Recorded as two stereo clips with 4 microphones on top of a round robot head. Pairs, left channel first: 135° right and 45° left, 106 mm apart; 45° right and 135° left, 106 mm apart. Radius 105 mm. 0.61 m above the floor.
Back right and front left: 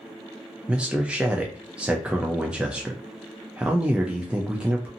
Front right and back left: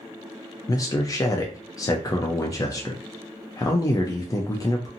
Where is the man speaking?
30° right, 0.6 m.